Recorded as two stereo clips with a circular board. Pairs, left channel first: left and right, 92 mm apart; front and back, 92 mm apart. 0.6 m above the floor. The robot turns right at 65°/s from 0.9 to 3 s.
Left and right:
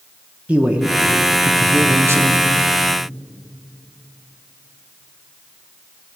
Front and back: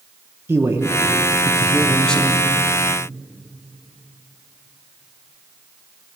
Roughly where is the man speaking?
Behind right.